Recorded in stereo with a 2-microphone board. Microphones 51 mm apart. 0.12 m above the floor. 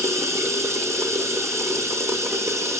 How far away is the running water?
About 1.1 m.